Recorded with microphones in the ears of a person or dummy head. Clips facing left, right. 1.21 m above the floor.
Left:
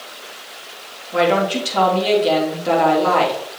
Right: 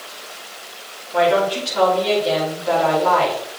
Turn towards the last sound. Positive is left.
turn(degrees=70)  # may be behind; listen again after turning